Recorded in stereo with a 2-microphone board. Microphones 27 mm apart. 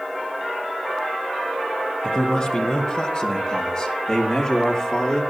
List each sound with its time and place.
2.0 s a man speaking: 35° left (ahead or behind), 3.5 m; by 5.2 s 30° left (ahead or behind), 6 m